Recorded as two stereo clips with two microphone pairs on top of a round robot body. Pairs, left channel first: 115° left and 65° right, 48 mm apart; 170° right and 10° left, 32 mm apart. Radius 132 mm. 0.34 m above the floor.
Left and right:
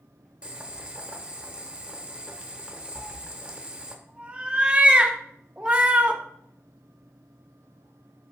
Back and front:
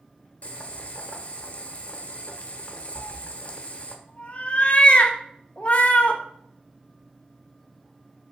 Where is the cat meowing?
125° right, 0.9 m.